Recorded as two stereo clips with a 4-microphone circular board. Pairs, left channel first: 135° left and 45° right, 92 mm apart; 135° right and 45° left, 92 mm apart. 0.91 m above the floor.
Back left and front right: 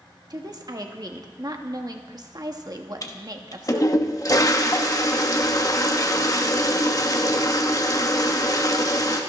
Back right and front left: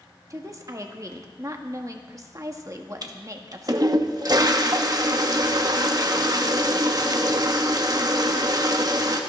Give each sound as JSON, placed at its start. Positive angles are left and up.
{"t": 0.3, "sound": "a woman speaking", "azimuth_deg": -5, "distance_m": 1.5}
{"t": 3.0, "sound": "a toilet flushing", "azimuth_deg": 85, "distance_m": 1.2}